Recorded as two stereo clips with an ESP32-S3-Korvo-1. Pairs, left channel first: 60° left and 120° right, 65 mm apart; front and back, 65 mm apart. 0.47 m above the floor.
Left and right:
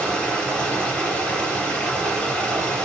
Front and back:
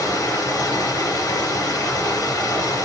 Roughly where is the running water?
Ahead.